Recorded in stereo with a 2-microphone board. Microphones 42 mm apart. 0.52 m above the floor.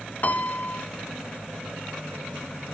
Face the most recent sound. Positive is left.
turn(degrees=45)  # may be behind; listen again after turning